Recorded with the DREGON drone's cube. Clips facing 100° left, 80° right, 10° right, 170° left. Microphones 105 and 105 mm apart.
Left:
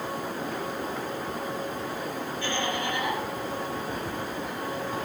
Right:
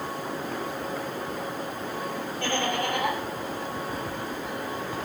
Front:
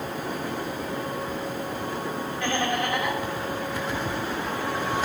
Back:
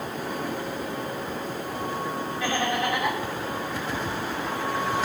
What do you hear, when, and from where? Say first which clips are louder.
2.4 s laughter: right 3 dB, even; 105° right, 3 m